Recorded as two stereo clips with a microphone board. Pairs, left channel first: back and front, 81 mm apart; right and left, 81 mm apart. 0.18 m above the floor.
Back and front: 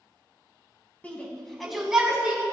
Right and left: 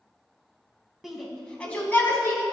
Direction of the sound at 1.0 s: 170° left.